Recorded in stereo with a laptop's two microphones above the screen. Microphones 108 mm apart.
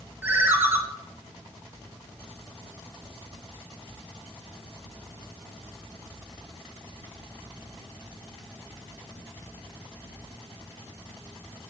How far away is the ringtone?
About 0.9 m.